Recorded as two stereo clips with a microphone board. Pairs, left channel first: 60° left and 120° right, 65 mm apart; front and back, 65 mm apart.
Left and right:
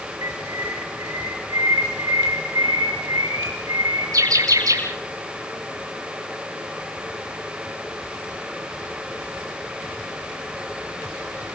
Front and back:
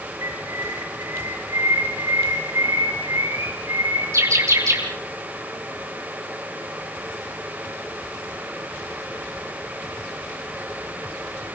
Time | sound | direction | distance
0.2 | a bird | 145° right | 9 m